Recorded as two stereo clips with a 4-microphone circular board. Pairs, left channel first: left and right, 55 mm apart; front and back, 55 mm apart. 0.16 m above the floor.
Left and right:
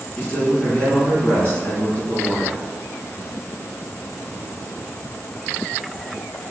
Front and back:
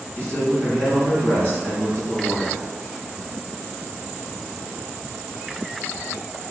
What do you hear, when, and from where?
0.2 s a man speaking: 40° left, 1.5 m